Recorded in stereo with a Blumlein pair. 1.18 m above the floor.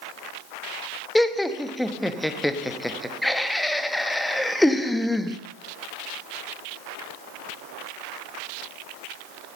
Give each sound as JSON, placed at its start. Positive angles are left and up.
{"t": 1.1, "sound": "laughter", "azimuth_deg": 5, "distance_m": 0.9}